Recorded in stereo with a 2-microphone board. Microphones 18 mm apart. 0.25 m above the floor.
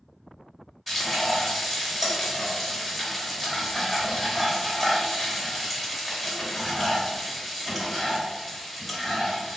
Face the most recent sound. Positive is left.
turn(degrees=-5)  # may be behind; listen again after turning